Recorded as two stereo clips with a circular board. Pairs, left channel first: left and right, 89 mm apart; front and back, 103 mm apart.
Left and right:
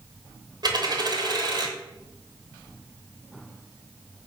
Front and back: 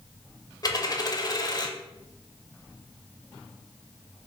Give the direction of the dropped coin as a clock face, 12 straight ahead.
2 o'clock.